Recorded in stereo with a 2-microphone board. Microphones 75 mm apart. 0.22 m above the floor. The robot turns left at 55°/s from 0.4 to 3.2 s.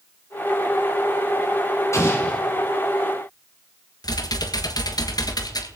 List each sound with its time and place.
1.9 s an explosion: 40° left (ahead or behind), 2.5 m; by 2.4 s 15° left (ahead or behind), 2.5 m
4.0 s typing on a keyboard: 60° left (ahead or behind), 1.5 m